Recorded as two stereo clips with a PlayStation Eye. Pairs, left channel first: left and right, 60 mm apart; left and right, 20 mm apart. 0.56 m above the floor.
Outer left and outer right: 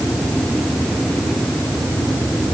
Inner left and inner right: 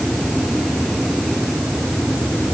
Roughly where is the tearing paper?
I don't hear tearing paper.